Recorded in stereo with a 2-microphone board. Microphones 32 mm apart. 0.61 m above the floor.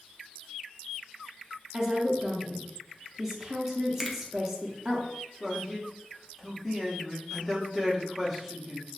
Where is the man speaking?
5° left (ahead or behind), 0.8 m.